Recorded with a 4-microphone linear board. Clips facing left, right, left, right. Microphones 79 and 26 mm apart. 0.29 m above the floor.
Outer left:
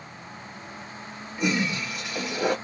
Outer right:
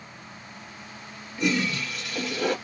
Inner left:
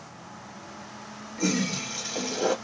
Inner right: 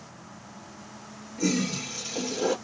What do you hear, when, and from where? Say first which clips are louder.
1.4 s a toilet flushing: even, even; 20° left (ahead or behind), 1.2 m